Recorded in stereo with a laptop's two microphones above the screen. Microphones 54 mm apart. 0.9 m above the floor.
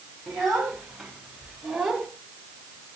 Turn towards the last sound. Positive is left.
turn(degrees=-5)  # may be behind; listen again after turning